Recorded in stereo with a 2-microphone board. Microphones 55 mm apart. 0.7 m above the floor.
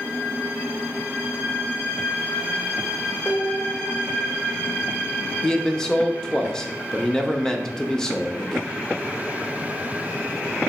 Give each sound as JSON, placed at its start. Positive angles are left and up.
{"t": 3.2, "sound": "dishes clattering", "side_deg": 45, "distance_m": 1.4}
{"t": 5.4, "sound": "a man speaking", "side_deg": 10, "distance_m": 0.5}